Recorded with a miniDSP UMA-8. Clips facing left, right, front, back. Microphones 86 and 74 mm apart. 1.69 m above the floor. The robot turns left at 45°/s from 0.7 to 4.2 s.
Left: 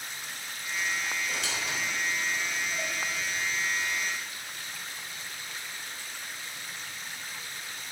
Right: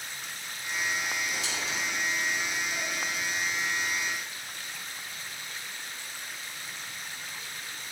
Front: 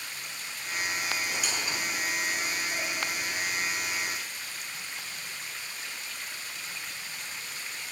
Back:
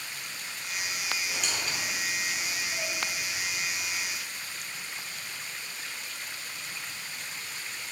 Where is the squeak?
90° left, 3.5 m; by 2.9 s 20° left, 3.5 m.